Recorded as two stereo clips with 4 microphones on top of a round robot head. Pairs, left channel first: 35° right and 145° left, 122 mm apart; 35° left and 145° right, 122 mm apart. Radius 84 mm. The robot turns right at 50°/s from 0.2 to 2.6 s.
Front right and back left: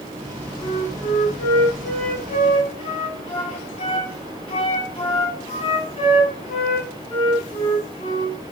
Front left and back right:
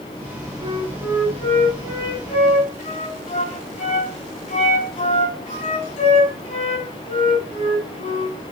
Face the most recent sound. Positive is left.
turn(degrees=10)